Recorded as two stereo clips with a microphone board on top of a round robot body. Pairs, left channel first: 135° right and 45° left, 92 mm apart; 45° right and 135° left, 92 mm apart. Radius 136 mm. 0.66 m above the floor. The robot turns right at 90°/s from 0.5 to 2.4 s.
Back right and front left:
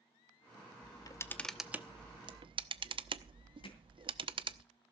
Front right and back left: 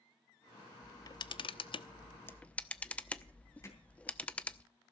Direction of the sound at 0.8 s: 115° right.